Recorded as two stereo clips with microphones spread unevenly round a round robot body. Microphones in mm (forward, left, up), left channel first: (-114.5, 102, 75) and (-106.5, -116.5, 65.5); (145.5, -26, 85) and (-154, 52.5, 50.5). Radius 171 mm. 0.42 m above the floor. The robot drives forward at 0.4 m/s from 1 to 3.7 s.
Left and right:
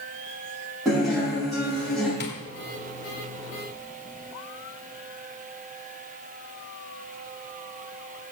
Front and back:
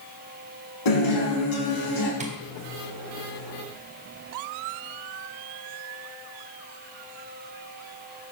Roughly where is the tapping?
Left.